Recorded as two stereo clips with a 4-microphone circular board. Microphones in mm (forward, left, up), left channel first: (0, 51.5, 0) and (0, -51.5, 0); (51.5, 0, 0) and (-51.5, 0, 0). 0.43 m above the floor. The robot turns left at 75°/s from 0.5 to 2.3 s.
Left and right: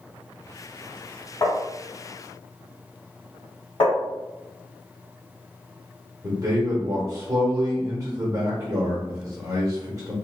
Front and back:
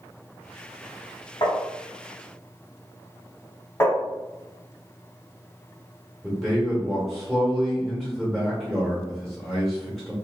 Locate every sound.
1.4 s tapping: 40° left, 1.0 m; by 1.6 s 30° left, 1.0 m
3.8 s tapping: 60° left, 1.0 m
6.2 s a man speaking: 85° right, 1.1 m